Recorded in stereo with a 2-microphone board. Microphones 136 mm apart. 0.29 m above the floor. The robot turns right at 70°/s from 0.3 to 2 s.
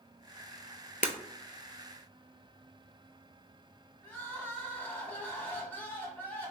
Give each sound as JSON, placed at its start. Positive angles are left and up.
{"t": 1.0, "sound": "breaking glass", "side_deg": 75, "distance_m": 0.5}
{"t": 4.0, "sound": "crying", "side_deg": 15, "distance_m": 0.7}